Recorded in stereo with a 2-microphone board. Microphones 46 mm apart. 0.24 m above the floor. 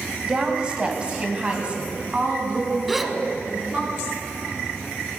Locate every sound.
0.2 s a woman speaking: 20° right (ahead or behind), 1.5 m; by 3.9 s 25° right (ahead or behind), 3.5 m
2.9 s a gasp: centre (ahead or behind), 0.7 m